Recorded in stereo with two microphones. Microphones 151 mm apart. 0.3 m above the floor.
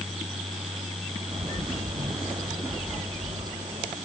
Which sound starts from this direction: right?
A bird, at 1.3 s.